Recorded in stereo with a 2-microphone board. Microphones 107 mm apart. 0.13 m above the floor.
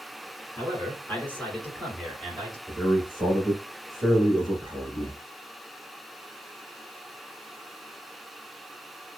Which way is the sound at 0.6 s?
25° left (ahead or behind).